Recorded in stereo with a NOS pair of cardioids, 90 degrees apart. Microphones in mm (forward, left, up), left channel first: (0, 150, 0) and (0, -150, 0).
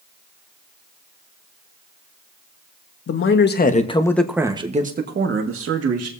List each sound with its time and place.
3.1 s a man speaking: 45° left, 1.6 m; by 6.1 s 55° right, 2 m